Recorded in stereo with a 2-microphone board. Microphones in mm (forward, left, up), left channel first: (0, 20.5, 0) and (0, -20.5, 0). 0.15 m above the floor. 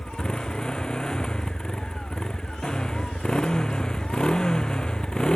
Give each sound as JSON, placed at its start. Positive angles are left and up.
{"t": 0.0, "sound": "a motorcycle", "side_deg": 20}